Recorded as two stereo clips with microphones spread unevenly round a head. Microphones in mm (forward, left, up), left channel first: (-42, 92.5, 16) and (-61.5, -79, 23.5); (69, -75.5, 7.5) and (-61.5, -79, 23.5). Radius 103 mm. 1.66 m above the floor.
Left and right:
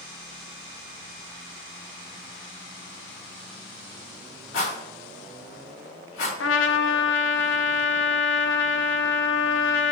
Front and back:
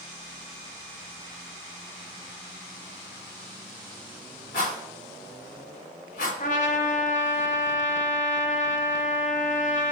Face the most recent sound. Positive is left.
turn(degrees=55)